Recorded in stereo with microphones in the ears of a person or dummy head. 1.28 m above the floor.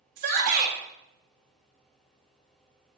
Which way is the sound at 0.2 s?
45° right (ahead or behind).